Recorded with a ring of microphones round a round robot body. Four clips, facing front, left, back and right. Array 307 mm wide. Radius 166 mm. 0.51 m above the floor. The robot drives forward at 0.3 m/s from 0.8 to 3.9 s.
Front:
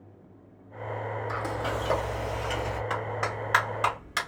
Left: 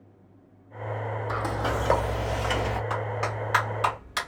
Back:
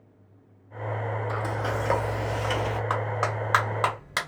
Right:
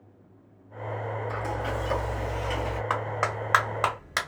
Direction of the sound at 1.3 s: 85° left.